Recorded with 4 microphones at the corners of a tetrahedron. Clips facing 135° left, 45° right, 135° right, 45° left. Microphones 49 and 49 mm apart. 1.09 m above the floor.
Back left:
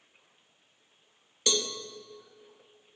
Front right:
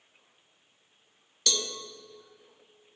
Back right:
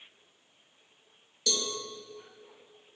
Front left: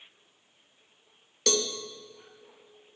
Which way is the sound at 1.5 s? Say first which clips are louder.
Back left 2 dB, front left 6 dB; 65° left.